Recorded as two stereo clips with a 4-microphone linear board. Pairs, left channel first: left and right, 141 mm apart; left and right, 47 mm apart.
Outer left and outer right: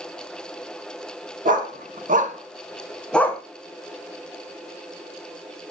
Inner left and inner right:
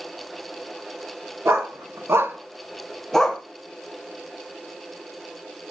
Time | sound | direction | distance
1.4 | a dog barking | 70° right (ahead or behind) | 1.4 m